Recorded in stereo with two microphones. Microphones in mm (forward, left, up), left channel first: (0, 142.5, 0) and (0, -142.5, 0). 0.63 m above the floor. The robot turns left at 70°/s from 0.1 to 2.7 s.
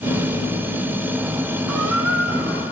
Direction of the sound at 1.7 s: 80° right.